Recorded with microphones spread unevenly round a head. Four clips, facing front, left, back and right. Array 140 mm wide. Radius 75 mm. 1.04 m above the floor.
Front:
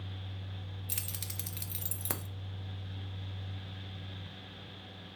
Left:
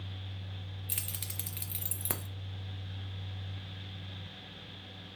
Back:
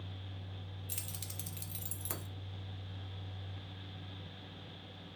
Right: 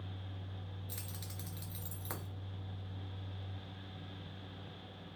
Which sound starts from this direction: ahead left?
Keys jangling, at 0.9 s.